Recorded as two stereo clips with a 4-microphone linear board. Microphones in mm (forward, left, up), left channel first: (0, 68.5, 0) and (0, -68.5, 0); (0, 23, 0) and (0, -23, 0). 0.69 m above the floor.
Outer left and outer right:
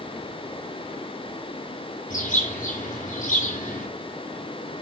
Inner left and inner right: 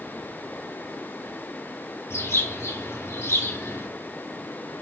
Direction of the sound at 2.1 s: 70° left (ahead or behind).